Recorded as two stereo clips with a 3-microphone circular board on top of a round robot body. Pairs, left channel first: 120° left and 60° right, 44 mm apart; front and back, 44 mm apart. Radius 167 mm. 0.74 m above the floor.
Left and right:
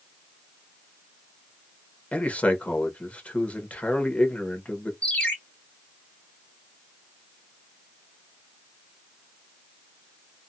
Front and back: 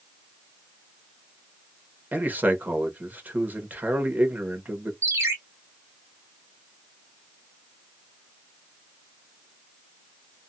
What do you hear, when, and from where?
2.1 s a man speaking: 155° left, 1.2 m
5.0 s a ringtone: 175° right, 0.6 m